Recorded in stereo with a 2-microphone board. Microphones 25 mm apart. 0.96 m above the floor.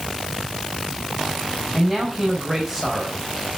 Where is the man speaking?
10° right (ahead or behind), 4.5 m.